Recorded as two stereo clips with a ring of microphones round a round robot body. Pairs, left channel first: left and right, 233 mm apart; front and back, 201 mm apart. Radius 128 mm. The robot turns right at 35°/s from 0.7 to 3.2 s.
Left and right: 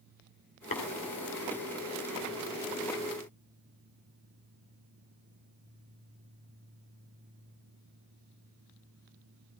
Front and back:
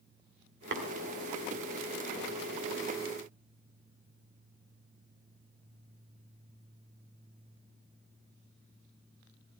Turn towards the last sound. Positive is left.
turn(degrees=-120)